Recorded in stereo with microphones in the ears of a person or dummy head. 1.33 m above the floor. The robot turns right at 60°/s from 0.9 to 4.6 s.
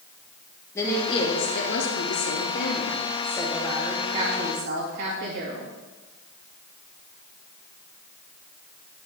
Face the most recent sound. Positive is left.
turn(degrees=-125)